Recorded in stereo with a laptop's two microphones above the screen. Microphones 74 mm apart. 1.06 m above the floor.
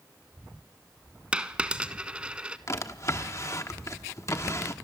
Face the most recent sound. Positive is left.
turn(degrees=45)  # may be behind; listen again after turning